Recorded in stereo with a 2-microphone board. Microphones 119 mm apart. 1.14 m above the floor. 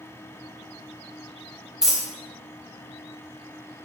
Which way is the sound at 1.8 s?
5° right (ahead or behind).